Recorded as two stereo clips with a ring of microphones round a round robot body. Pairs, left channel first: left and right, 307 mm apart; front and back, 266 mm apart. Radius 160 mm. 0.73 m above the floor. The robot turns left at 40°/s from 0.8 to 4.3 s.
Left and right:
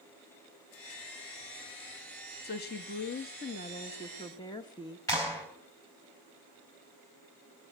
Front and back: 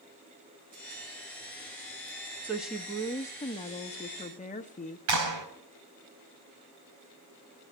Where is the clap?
170° left, 4.5 m.